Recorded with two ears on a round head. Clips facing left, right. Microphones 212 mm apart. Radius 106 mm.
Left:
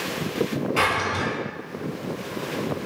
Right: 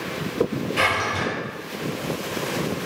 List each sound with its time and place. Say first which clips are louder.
0.8 s a drawer: even; 80° left, 1.6 m